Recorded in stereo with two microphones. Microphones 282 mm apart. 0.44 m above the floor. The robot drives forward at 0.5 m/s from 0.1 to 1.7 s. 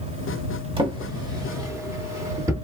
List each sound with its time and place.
0.8 s a drawer: 20° right (ahead or behind), 0.7 m; by 2.5 s 10° right (ahead or behind), 1.1 m